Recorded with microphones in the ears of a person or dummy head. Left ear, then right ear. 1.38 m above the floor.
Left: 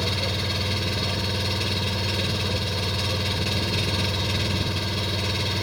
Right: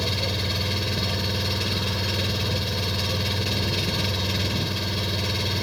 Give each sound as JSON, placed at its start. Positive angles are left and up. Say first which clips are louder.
{"t": 0.0, "sound": "an engine running", "louder": "even", "side_deg": 5}